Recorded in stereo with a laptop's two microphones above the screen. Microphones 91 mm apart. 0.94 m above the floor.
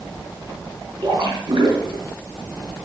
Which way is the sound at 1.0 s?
65° right (ahead or behind).